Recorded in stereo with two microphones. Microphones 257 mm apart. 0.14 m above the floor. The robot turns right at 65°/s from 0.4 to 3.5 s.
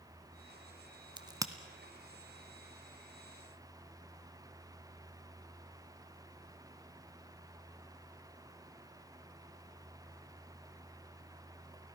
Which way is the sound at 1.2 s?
20° right (ahead or behind).